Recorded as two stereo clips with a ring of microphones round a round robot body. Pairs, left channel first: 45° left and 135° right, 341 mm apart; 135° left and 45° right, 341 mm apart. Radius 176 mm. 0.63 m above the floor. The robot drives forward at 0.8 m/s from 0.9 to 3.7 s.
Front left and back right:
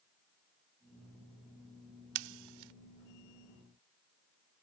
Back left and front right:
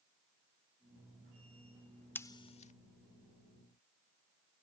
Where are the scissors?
140° right; by 2.7 s 155° right.